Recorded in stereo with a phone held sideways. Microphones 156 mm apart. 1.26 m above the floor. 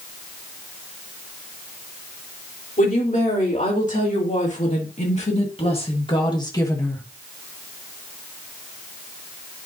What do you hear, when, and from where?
2.8 s a woman speaking: 60° left (ahead or behind), 3.5 m; by 7.0 s 10° left (ahead or behind), 1.3 m